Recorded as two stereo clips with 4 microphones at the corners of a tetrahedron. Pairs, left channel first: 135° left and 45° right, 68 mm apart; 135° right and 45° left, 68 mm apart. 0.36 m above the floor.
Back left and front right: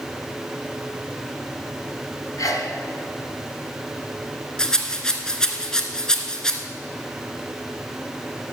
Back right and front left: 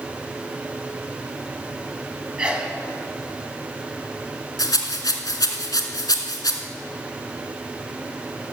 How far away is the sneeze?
About 2.5 m.